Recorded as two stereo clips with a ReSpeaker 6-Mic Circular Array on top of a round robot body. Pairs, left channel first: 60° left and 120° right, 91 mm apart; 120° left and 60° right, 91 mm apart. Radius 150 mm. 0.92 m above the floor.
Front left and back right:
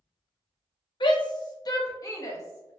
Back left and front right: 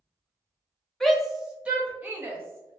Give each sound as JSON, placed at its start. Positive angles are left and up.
{"t": 1.0, "sound": "a shout", "azimuth_deg": 35, "distance_m": 1.1}